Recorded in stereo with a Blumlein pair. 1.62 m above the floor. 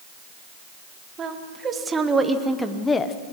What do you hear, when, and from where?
1.2 s a woman speaking: 25° right, 2.5 m; by 3.2 s 25° left, 1.1 m